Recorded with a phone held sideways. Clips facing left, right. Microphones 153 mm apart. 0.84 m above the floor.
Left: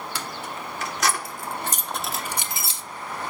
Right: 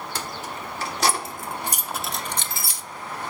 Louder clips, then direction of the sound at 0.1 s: Right 1 dB; 45° right (ahead or behind).